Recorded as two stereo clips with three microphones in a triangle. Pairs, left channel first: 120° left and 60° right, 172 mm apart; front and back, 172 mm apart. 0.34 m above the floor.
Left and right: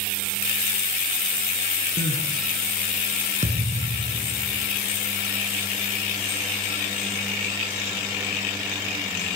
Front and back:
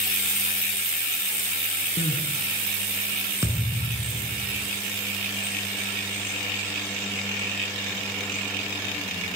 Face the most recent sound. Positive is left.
turn(degrees=-105)